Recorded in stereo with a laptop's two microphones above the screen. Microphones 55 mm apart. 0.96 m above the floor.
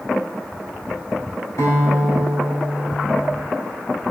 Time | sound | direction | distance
1.6 | a guitar | 85° left | 3.5 m